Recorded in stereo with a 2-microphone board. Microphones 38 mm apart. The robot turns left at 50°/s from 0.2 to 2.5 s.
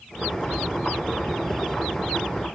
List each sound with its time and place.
Only background noise.